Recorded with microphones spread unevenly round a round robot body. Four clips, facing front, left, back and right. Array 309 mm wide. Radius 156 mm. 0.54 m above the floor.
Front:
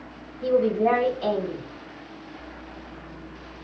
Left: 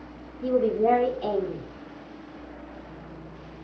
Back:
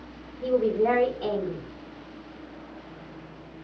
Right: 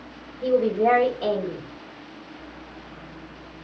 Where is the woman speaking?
130° right, 1.9 m.